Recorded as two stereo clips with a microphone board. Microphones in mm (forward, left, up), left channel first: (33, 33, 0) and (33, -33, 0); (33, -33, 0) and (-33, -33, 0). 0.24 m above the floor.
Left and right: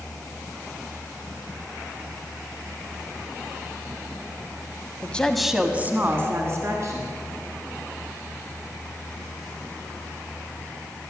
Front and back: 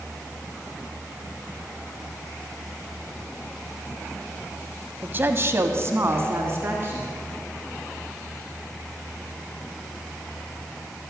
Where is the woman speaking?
140° left, 1.1 m; by 7.1 s 125° right, 3 m.